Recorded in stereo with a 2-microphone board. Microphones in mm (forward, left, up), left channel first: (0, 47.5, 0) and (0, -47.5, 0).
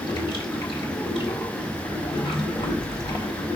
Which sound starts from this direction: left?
Running water, at 0.0 s.